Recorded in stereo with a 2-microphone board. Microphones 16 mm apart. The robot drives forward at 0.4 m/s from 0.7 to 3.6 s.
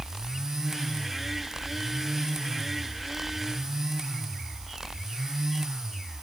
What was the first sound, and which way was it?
Only background noise.